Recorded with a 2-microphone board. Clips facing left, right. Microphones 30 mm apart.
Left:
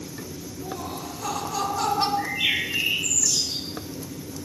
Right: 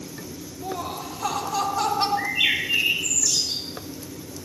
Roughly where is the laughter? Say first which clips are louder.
Right 3 dB; right.